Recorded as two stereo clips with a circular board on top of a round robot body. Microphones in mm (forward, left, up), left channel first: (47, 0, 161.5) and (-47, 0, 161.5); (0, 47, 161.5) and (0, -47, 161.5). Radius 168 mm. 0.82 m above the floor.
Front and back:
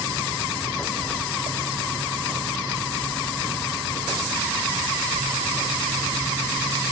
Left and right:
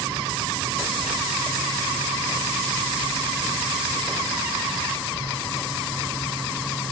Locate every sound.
Only background noise.